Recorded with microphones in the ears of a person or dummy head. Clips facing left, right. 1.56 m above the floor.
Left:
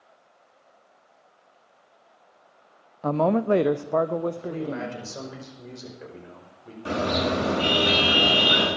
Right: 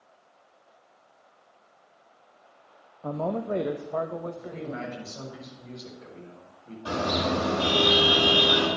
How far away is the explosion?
No explosion in this recording.